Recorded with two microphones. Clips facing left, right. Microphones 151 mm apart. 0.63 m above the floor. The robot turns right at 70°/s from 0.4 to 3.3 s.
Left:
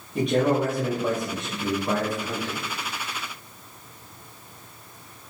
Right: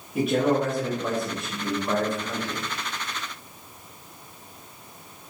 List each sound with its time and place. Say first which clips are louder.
0.1 s a man speaking: even; 5° right (ahead or behind), 0.6 m; by 2.6 s 15° left (ahead or behind), 0.6 m